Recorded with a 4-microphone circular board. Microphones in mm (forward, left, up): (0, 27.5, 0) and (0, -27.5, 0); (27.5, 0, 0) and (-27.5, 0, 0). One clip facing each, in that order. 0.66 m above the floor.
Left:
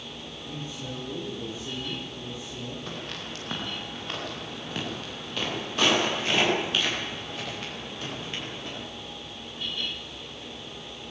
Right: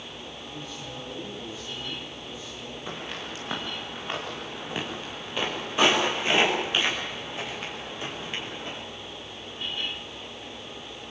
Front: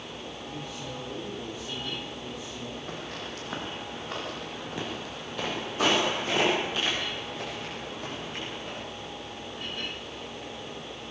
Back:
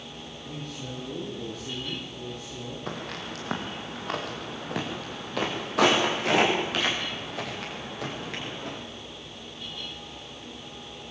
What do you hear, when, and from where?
0.4 s a man speaking: 145° left, 9.5 m
2.9 s footsteps: 165° right, 7.5 m; by 8.8 s 160° right, 14 m